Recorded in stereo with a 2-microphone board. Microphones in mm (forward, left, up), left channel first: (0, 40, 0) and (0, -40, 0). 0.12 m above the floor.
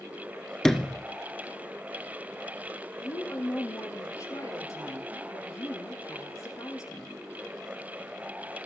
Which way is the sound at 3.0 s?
40° left (ahead or behind).